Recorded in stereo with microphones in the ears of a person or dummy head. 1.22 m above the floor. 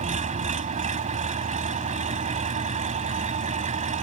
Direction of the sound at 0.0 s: 40° right (ahead or behind).